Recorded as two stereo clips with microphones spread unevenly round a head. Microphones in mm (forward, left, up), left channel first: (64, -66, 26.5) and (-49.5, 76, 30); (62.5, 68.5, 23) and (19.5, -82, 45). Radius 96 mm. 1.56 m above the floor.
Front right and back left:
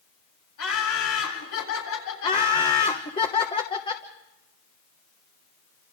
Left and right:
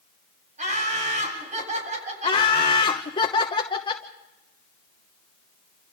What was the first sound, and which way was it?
Laughter, 65° right.